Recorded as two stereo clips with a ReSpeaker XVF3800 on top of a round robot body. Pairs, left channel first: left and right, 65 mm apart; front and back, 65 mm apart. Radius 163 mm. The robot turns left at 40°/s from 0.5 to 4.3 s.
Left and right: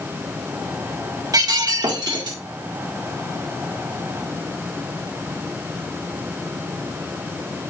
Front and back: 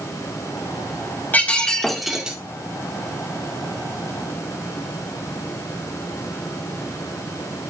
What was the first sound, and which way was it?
Breaking glass, 65° right.